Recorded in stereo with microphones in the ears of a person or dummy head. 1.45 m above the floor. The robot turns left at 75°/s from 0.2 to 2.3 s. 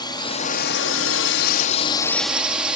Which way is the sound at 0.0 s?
160° left.